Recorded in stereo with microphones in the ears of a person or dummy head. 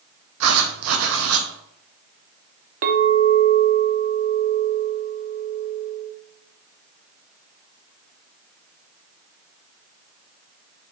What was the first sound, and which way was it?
Writing, 75° right (ahead or behind).